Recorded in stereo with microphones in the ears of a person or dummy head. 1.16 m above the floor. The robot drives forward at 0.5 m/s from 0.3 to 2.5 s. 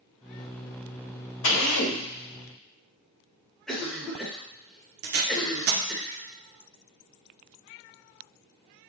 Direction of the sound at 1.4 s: 65° left (ahead or behind).